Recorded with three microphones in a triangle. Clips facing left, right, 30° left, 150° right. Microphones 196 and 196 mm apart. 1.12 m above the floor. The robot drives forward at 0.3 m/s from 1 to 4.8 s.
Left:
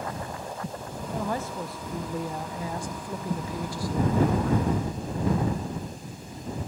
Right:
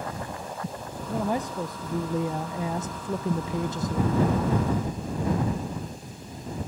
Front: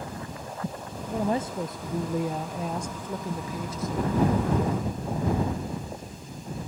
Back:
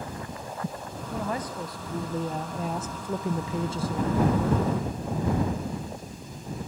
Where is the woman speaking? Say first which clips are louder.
Right 3 dB, front 5 dB; 20° right, 0.8 m; by 4.6 s 155° right, 0.7 m.